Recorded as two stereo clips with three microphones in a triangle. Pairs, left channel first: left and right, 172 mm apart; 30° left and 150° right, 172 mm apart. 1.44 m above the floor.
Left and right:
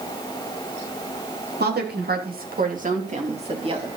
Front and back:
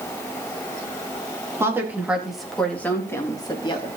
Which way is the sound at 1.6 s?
75° right.